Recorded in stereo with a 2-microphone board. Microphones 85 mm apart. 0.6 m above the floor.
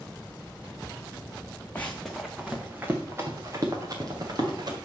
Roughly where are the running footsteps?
Centre.